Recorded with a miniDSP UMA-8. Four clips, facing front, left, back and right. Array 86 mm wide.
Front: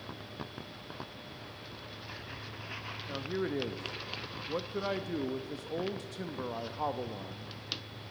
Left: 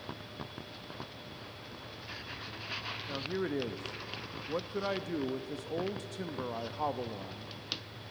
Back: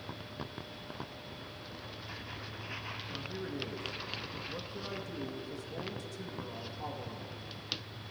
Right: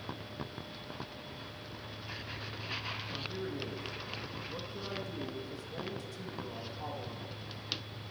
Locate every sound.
3.1 s a man speaking: 50° left, 0.6 m